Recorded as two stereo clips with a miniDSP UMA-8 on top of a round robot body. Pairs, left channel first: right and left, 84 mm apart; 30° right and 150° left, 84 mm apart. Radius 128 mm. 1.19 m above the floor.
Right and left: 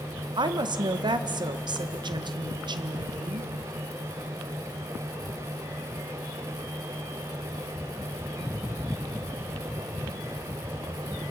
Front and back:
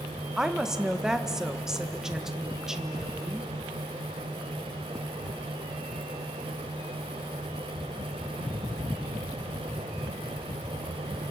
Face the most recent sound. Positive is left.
turn(degrees=65)